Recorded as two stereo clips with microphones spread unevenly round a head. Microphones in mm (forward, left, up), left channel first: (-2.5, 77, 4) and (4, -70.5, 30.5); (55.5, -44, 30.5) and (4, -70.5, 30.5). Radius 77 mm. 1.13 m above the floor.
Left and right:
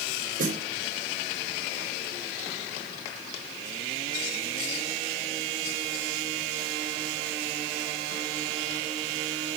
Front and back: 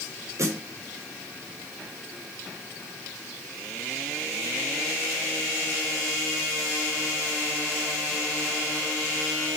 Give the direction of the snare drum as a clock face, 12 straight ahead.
4 o'clock.